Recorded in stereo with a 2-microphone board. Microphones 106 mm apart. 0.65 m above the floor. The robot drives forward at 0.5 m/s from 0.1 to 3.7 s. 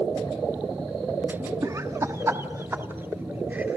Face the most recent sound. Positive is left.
turn(degrees=-15)  # may be behind; listen again after turning